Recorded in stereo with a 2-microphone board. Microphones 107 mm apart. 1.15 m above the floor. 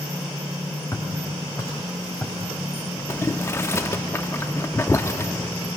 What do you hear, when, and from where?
0.9 s footsteps: 30° left (ahead or behind), 3.5 m; by 3.9 s 20° left (ahead or behind), 4.5 m
3.1 s boiling: 25° left (ahead or behind), 0.7 m